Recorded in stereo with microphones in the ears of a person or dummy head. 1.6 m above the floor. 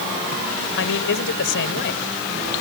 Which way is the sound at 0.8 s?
60° left (ahead or behind).